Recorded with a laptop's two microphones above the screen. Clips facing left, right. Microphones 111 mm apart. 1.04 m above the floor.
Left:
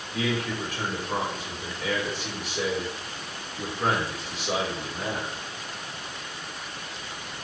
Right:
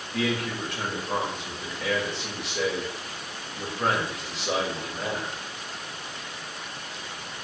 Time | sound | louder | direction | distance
0.1 | a man speaking | even | 75° right (ahead or behind) | 2 m